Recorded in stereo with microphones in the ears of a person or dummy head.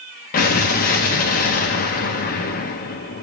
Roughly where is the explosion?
Left.